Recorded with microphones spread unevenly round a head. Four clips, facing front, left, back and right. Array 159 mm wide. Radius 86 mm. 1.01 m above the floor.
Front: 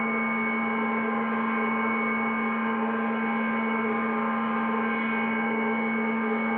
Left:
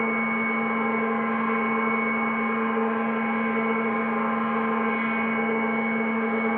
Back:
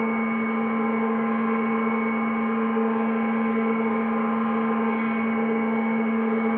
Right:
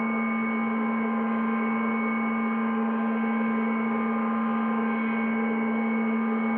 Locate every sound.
0.0 s a machine running: 135° left, 2.5 m